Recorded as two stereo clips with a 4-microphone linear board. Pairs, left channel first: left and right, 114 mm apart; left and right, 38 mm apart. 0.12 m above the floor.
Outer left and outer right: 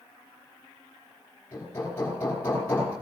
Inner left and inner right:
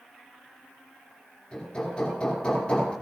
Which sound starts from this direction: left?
Hammering, at 1.5 s.